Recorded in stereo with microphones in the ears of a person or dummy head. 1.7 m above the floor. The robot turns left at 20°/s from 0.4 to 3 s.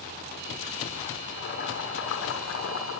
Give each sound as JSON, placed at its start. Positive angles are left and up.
{"t": 1.2, "sound": "boiling", "azimuth_deg": 130, "distance_m": 7.0}